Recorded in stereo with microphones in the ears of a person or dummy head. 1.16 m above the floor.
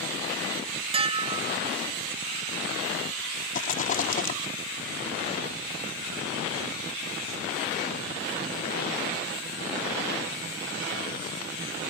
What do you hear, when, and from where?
0.9 s dishes clattering: 25° right (ahead or behind)
3.5 s a rattle: 45° left (ahead or behind)